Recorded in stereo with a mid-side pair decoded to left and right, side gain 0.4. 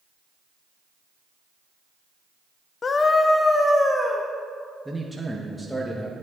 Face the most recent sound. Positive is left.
turn(degrees=-5)